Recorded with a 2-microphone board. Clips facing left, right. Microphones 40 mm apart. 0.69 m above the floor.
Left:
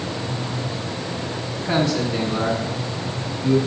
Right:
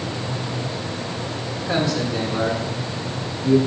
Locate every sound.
1.6 s a man speaking: 85° left, 5 m